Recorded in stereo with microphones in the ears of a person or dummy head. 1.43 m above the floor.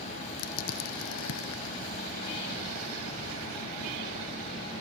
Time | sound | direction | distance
0.4 | crushing | 80° left | ?